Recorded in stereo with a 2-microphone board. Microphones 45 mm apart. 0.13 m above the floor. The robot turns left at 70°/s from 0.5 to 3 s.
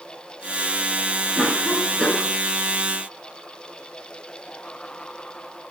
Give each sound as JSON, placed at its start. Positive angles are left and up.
{"t": 1.4, "sound": "a cough", "azimuth_deg": -165, "distance_m": 2.0}